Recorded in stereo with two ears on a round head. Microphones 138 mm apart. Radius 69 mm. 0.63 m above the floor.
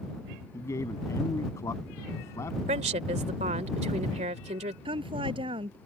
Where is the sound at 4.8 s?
40° right (ahead or behind).